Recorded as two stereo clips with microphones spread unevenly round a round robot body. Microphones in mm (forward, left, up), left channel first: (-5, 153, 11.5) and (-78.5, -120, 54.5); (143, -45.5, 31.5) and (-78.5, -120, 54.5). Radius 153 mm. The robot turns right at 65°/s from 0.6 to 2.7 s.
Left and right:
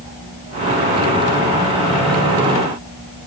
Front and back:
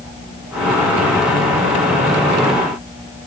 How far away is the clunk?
I don't hear a clunk.